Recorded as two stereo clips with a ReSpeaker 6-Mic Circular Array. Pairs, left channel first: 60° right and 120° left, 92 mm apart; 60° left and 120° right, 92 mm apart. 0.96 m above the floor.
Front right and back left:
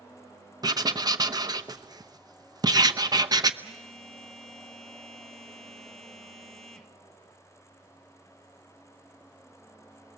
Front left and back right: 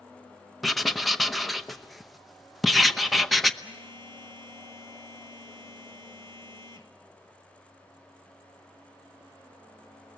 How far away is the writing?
About 0.8 m.